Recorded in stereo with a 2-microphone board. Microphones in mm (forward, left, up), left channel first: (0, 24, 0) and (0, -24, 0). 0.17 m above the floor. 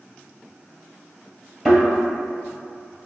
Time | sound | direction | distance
1.6 | a thud | 5° right (ahead or behind) | 1.6 m